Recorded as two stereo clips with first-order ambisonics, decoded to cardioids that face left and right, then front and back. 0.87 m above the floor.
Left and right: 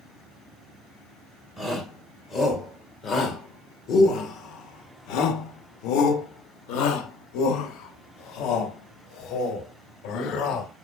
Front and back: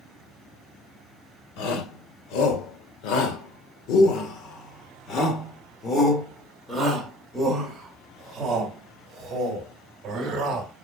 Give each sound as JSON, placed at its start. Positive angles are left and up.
{"t": 1.6, "sound": "a shout", "azimuth_deg": 10, "distance_m": 3.0}